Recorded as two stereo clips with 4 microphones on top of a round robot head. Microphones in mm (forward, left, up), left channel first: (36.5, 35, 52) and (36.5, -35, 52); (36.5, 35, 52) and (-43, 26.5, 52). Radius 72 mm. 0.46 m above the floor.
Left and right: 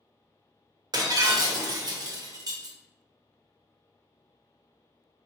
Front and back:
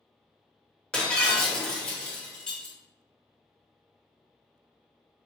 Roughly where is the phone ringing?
No phone ringing in this recording.